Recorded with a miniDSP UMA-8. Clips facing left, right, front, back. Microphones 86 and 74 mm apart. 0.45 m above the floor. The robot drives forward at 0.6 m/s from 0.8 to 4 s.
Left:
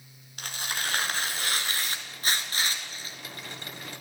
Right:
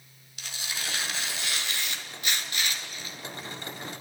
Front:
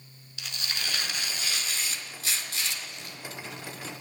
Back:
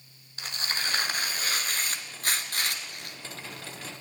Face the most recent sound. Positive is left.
turn(degrees=150)